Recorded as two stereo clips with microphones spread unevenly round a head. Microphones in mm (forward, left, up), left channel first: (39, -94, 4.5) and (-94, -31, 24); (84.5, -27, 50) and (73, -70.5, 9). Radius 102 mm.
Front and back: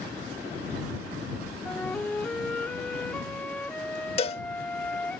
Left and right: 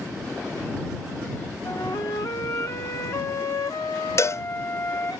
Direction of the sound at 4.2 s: 25° left.